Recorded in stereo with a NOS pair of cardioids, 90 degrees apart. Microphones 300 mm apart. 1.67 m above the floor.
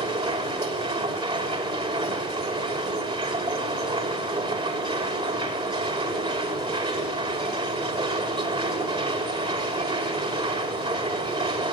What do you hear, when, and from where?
0.0 s a machine running: 15° right, 5.5 m